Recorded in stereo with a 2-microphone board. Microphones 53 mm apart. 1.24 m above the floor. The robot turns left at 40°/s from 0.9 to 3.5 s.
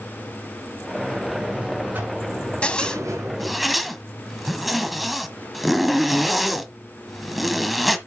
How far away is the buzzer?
About 5.5 m.